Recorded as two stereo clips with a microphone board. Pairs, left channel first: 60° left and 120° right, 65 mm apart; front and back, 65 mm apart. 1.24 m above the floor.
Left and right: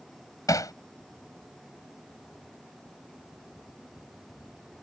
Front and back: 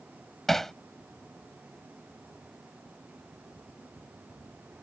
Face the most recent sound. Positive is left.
turn(degrees=85)